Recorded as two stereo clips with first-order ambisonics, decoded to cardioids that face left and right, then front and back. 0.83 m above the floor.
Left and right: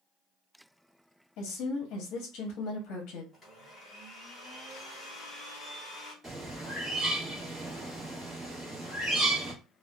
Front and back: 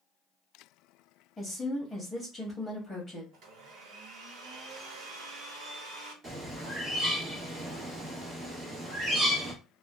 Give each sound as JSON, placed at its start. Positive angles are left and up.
{"t": 1.4, "sound": "a woman speaking", "azimuth_deg": 80, "distance_m": 0.8}
{"t": 3.3, "sound": "a blender", "azimuth_deg": 165, "distance_m": 1.2}
{"t": 6.2, "sound": "a bird", "azimuth_deg": -155, "distance_m": 1.1}